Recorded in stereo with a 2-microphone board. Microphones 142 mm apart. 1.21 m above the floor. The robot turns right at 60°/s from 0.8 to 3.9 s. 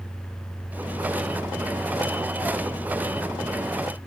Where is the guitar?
I don't hear a guitar.